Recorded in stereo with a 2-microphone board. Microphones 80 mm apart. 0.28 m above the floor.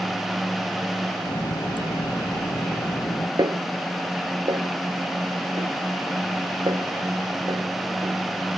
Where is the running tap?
75° left (ahead or behind).